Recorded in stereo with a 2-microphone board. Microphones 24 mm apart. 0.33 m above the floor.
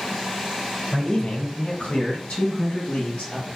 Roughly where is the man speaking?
Left.